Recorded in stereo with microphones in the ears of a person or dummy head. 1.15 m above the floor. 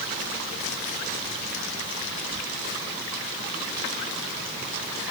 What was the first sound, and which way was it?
Only background noise.